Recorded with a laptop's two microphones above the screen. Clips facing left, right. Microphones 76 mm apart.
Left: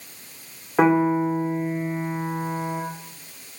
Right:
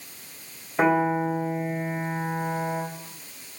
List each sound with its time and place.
0.8 s a piano: 75° left (ahead or behind), 2.5 m